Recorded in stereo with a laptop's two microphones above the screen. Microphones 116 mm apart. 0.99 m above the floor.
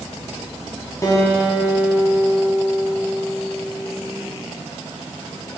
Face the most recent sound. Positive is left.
turn(degrees=30)  # may be behind; listen again after turning